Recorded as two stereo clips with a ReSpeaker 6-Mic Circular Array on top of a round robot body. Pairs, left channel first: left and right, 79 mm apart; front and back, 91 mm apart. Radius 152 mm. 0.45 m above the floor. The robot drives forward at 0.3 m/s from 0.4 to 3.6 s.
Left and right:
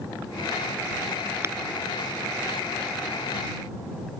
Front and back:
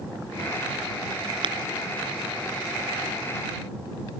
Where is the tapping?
150° right.